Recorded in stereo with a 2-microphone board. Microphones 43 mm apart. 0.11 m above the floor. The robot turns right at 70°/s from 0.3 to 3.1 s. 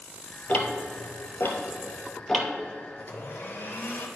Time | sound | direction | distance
0.5 | ticking | 35° left (ahead or behind) | 0.9 m
3.0 | a blender | 45° left (ahead or behind) | 0.9 m